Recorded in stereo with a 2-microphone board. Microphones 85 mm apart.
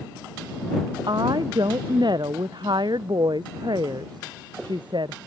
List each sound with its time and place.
1.1 s a woman speaking: 55° right (ahead or behind); by 5.2 s 65° right (ahead or behind)